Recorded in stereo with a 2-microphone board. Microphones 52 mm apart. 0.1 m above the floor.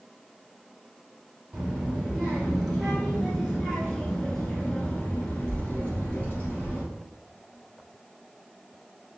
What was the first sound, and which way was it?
A child speaking, 10° right (ahead or behind).